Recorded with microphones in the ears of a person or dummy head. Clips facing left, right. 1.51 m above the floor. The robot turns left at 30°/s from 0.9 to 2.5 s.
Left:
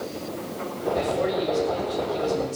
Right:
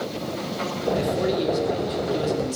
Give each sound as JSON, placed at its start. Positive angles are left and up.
{"t": 0.9, "sound": "a man speaking", "azimuth_deg": -10, "distance_m": 3.5}